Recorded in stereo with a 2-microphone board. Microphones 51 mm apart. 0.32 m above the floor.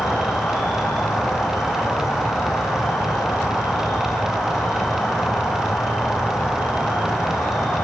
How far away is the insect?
About 3 m.